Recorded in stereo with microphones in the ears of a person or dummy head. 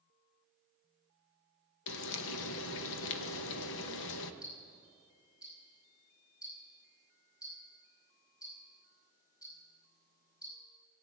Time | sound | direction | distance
1.9 | frying | 65° left (ahead or behind) | 1.1 m
4.4 | ticking | 20° left (ahead or behind) | 5 m